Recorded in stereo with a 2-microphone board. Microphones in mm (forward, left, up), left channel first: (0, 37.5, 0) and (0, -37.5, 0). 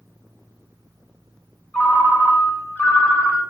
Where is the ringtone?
25° left (ahead or behind), 0.7 m.